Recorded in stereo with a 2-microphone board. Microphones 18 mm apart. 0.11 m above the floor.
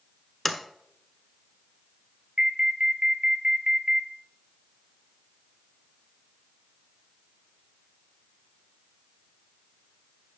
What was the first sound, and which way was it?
A sliding door, 10° left (ahead or behind).